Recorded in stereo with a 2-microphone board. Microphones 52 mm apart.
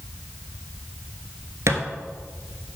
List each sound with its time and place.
1.7 s a thud: 70° right (ahead or behind), 1.0 m